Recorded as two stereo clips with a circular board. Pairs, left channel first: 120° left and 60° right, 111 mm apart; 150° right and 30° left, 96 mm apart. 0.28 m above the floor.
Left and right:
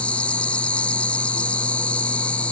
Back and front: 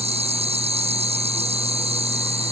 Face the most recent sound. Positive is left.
turn(degrees=40)